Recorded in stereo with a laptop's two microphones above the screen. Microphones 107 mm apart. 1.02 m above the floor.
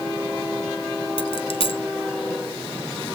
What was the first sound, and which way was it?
A dropped coin, 60° left (ahead or behind).